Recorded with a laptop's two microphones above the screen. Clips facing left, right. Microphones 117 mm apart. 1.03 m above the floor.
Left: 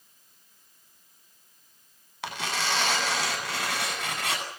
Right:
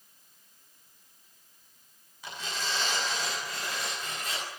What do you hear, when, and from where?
2.2 s tearing paper: 80° left, 9 m